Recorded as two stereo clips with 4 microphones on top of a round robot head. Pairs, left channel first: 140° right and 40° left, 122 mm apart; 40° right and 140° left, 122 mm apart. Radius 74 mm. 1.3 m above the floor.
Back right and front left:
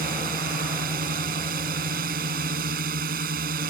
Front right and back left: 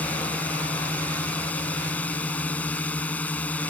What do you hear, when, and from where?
0.0 s a drone: 35° left